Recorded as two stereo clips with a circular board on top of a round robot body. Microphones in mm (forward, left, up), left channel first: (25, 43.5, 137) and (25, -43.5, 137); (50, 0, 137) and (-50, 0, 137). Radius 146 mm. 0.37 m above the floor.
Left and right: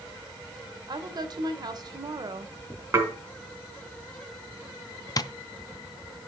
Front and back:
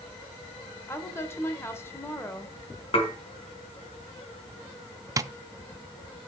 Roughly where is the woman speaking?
Ahead right.